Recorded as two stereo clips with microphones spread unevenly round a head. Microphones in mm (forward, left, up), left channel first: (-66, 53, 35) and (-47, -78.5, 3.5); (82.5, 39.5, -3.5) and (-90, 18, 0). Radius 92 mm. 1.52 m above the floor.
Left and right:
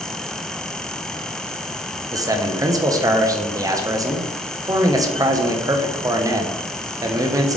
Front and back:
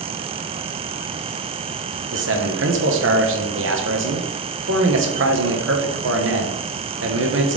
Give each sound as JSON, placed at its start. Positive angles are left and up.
{"t": 2.1, "sound": "a man speaking", "azimuth_deg": -145, "distance_m": 1.5}